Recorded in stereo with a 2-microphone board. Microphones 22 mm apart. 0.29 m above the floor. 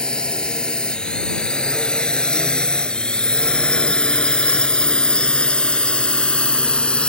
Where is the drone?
45° left (ahead or behind); by 7.1 s 55° left (ahead or behind).